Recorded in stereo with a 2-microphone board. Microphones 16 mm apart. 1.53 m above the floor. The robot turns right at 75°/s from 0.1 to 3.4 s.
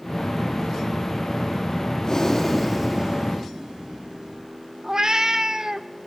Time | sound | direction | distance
2.0 | breathing | 135° left | 4 m
4.8 | a cat meowing | 35° right (ahead or behind) | 0.8 m